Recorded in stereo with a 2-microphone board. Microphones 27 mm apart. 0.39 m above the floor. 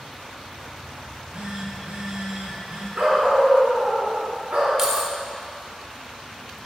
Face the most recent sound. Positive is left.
turn(degrees=-20)  # may be behind; listen again after turning